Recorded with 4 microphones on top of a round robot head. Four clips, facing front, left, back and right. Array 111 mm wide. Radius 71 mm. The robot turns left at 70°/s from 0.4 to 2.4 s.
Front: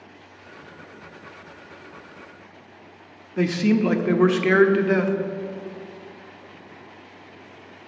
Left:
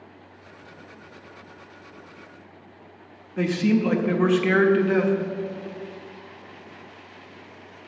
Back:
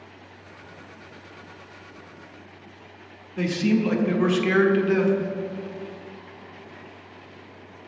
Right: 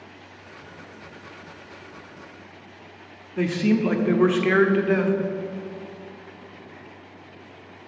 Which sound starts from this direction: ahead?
A man speaking, at 3.4 s.